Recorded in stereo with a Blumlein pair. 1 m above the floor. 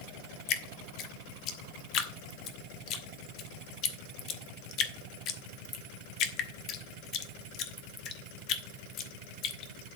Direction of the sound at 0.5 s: 35° left.